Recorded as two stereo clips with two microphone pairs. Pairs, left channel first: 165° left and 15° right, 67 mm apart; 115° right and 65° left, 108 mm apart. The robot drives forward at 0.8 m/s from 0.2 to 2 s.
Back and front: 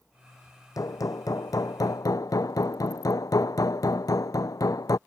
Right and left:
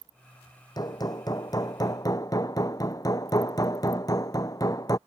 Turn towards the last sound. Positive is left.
turn(degrees=-170)